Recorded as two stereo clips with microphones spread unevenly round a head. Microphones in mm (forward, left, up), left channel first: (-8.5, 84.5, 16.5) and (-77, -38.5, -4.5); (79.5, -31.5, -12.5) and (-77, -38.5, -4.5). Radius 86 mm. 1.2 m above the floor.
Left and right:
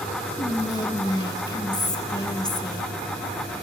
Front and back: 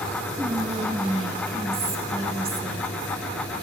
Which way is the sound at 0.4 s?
125° left.